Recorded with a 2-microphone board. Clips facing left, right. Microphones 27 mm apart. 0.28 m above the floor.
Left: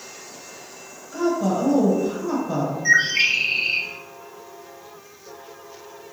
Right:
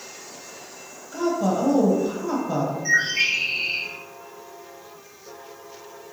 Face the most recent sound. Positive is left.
turn(degrees=35)  # may be behind; listen again after turning